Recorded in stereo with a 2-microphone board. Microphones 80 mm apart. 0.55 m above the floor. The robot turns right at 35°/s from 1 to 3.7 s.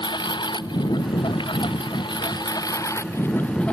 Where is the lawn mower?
70° left; by 3.8 s 165° left.